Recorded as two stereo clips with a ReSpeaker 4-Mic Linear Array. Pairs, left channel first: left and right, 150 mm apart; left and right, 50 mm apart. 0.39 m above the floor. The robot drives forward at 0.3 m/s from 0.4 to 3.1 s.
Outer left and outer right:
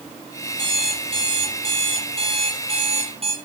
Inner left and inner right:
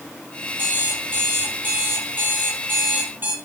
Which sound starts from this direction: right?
An alarm clock, at 0.6 s.